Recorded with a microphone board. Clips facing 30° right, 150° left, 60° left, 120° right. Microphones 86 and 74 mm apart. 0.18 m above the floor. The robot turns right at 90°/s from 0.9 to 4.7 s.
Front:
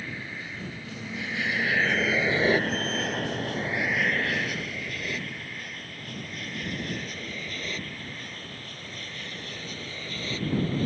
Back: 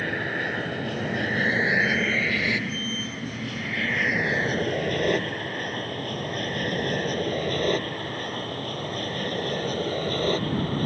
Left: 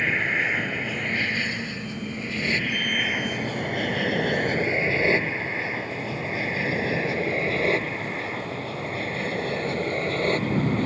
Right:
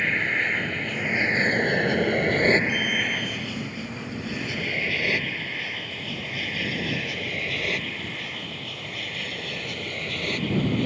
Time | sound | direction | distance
0.0 | an aircraft | 145° left | ?